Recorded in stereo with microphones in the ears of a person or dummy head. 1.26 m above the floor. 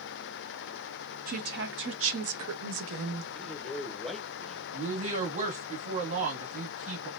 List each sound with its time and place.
1.3 s a woman speaking: 50° right (ahead or behind), 1.0 m; by 3.2 s 60° right (ahead or behind), 1.3 m
3.4 s a man speaking: 5° left (ahead or behind), 0.8 m
4.7 s a woman speaking: 45° right (ahead or behind), 1.9 m